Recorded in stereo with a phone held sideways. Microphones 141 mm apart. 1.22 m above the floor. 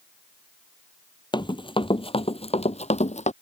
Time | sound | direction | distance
1.3 | running footsteps | 30° left (ahead or behind) | ?